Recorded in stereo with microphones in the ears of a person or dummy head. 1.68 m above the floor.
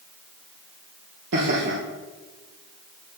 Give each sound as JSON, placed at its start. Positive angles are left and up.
{"t": 1.3, "sound": "laughter", "side_deg": -60, "distance_m": 1.3}